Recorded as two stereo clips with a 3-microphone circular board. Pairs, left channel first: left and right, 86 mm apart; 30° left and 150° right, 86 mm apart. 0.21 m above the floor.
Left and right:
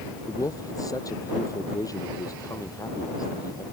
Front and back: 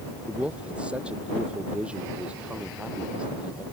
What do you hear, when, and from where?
0.3 s a man speaking: 135° left